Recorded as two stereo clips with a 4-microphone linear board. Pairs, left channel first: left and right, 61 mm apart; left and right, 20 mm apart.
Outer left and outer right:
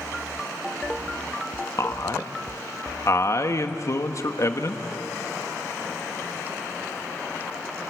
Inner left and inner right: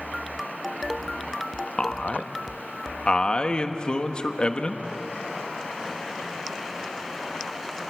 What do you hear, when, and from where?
1.8 s a man speaking: 55° left (ahead or behind), 1.3 m